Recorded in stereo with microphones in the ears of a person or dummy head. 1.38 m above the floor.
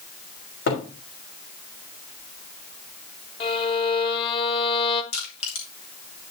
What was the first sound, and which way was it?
A cupboard door, 50° left (ahead or behind).